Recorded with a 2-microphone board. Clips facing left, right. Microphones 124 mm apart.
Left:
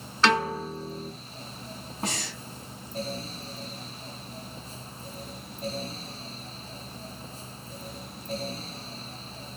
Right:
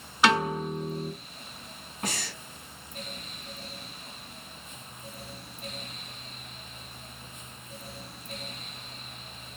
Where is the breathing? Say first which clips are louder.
Left 2 dB; 25° left (ahead or behind), 1.0 m.